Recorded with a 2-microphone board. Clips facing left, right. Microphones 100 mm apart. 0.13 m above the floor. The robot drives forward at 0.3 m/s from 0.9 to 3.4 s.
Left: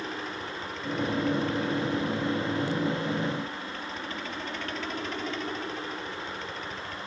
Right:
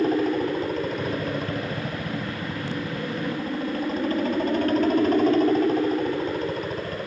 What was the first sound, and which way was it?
A helicopter, 45° right (ahead or behind).